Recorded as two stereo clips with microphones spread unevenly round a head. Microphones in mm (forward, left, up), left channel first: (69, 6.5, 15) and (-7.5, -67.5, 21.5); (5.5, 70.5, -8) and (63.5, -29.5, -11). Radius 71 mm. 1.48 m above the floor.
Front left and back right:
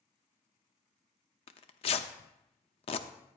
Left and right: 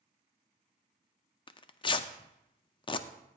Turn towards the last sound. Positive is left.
turn(degrees=75)